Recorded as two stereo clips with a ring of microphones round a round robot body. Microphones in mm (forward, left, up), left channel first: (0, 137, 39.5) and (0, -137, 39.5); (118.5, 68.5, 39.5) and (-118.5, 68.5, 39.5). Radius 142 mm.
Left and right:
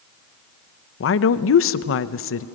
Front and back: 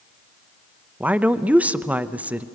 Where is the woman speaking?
100° left, 0.6 m.